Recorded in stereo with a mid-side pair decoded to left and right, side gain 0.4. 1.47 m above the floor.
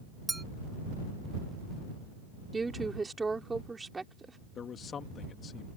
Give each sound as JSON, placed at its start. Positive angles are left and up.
{"t": 0.3, "sound": "a clink", "azimuth_deg": -20}
{"t": 2.5, "sound": "a woman speaking", "azimuth_deg": -25}
{"t": 4.5, "sound": "a man speaking", "azimuth_deg": 55}